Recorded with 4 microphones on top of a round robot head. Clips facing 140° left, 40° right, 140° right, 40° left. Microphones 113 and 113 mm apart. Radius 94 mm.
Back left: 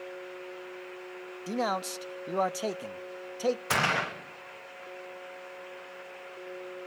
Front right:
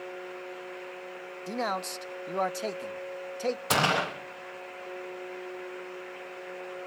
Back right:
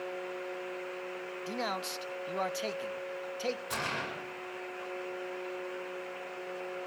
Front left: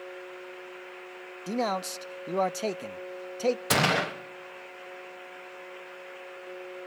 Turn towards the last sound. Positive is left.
turn(degrees=30)